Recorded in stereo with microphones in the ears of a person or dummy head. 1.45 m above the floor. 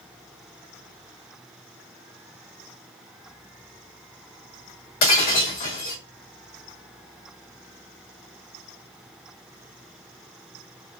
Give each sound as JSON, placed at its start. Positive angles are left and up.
{"t": 5.0, "sound": "breaking glass", "side_deg": 50, "distance_m": 1.8}